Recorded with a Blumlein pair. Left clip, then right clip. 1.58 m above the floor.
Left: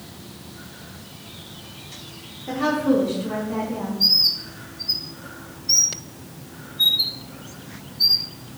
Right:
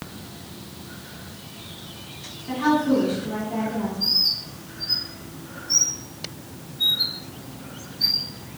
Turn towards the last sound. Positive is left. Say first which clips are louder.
# left 4 dB
turn(degrees=50)